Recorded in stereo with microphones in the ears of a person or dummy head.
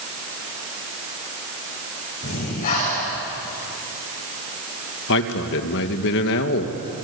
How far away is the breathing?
About 9 m.